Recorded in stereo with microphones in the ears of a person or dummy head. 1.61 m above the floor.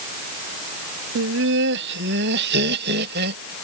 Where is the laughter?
70° right (ahead or behind); by 3.5 s 60° right (ahead or behind).